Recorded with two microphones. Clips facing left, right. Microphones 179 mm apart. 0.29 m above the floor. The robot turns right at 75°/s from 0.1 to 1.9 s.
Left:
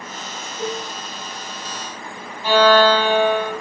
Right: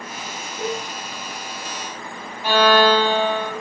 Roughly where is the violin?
Centre.